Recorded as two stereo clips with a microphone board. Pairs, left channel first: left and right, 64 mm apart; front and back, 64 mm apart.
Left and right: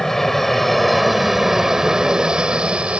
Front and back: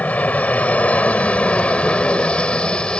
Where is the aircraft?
15° left; by 3.0 s 55° right.